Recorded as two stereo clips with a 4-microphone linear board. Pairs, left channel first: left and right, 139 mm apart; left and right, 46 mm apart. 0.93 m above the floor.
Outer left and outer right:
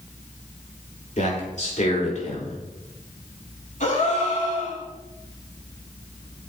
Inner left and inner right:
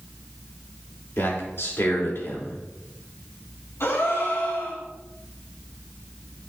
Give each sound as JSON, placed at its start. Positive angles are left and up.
{"t": 1.2, "sound": "a man speaking", "side_deg": 60, "distance_m": 3.0}
{"t": 3.8, "sound": "a gasp", "side_deg": 65, "distance_m": 4.0}